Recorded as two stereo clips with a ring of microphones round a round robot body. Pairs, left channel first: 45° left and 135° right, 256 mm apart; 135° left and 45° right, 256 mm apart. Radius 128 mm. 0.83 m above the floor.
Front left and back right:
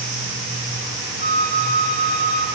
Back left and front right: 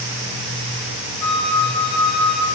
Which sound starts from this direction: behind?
A flute, at 1.2 s.